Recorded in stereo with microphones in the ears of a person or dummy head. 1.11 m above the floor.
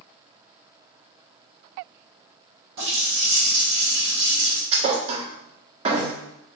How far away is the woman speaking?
No woman speaking in this recording.